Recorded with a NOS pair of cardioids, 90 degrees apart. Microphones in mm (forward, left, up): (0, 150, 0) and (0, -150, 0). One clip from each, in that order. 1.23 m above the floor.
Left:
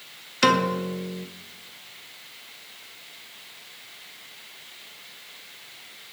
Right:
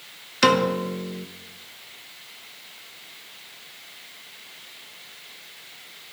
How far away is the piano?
About 0.9 m.